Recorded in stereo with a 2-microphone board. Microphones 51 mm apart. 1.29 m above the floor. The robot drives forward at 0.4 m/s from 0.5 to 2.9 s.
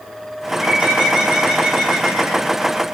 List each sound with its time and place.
0.5 s a bird: 20° right (ahead or behind), 4 m; by 2.5 s 15° right (ahead or behind), 4.5 m